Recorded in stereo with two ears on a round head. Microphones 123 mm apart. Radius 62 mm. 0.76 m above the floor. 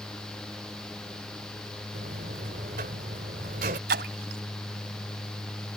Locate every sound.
1.9 s a buzzer: 65° right (ahead or behind)
3.9 s a splash: 85° right